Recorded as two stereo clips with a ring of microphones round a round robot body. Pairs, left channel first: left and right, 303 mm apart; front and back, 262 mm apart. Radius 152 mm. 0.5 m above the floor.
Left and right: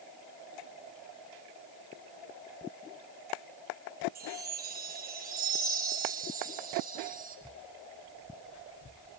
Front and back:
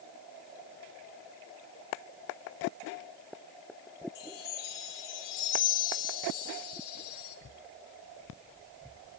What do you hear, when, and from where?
4.2 s a chime: 25° right, 2.5 m